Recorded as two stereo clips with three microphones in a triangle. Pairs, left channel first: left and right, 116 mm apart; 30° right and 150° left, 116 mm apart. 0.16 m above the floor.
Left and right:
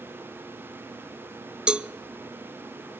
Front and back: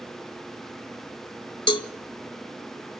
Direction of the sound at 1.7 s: 10° right.